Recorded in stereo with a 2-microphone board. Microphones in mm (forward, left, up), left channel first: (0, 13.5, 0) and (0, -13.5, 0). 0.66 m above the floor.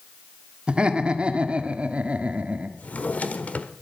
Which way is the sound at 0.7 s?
40° right (ahead or behind).